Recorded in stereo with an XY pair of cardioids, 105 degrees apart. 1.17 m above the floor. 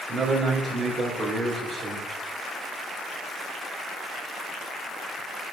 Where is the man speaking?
50° right, 3.5 m.